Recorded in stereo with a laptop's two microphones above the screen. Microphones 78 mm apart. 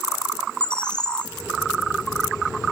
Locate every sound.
0.6 s a bird: 10° left (ahead or behind), 1.3 m